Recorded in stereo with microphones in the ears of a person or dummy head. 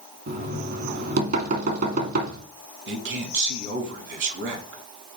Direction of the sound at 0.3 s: 55° right (ahead or behind).